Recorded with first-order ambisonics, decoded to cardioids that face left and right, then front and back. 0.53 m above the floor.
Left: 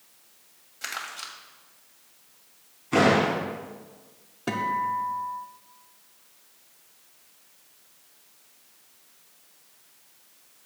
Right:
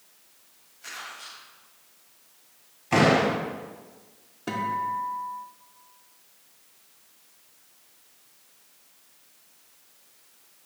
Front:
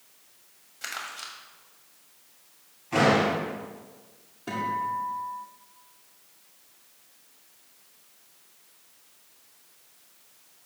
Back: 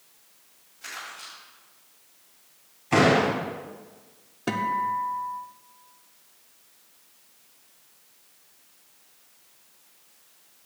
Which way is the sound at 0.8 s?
55° left.